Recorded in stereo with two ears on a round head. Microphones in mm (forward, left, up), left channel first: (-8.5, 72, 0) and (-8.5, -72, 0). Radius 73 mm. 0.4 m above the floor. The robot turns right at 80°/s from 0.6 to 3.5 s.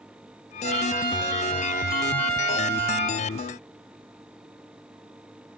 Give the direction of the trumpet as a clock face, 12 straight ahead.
4 o'clock.